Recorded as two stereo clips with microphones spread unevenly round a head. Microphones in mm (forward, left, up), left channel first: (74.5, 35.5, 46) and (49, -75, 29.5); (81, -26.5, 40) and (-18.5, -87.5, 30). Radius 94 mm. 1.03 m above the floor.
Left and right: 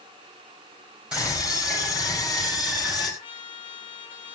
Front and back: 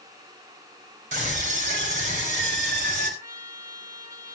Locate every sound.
1.1 s a scream: 175° left, 5 m; by 3.1 s 170° left, 6 m
3.2 s a trumpet: 140° left, 1.7 m